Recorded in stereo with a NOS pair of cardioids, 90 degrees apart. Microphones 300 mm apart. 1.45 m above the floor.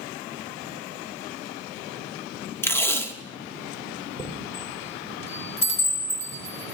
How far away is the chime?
About 4 m.